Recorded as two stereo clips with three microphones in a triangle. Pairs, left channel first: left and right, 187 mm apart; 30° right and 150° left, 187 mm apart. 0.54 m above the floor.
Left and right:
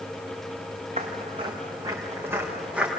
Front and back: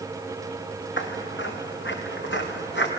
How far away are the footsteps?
About 3.5 m.